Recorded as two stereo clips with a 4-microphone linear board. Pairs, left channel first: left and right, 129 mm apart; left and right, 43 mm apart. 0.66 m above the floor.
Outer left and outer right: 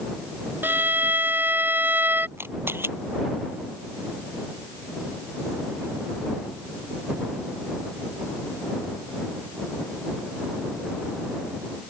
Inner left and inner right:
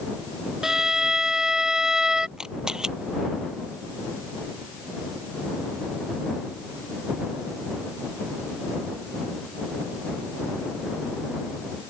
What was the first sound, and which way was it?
A violin, 15° right (ahead or behind).